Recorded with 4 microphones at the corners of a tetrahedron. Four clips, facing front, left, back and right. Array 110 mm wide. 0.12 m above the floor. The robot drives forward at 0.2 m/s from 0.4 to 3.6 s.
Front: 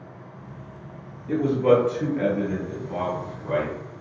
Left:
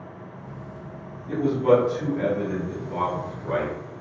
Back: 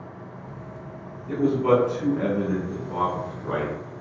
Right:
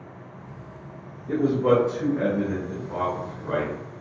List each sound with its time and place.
1.3 s a man speaking: 90° right, 1.3 m; by 3.8 s 130° right, 1.4 m